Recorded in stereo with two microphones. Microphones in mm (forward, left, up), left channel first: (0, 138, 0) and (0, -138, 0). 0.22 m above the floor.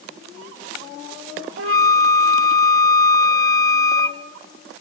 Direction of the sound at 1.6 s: 55° right (ahead or behind).